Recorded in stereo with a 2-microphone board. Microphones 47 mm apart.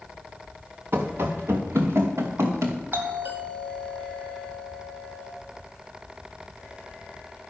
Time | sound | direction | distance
0.9 | running footsteps | 60° right (ahead or behind) | 2 m
2.9 | a doorbell | 50° right (ahead or behind) | 2.5 m